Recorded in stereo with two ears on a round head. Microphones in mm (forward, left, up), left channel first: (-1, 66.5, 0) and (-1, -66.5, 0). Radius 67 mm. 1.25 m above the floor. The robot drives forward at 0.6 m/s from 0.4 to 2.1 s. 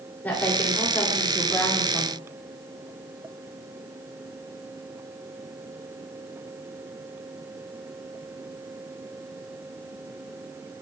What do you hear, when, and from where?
0.2 s a woman speaking: 10° left (ahead or behind), 5 m; by 2.1 s 15° left (ahead or behind), 4 m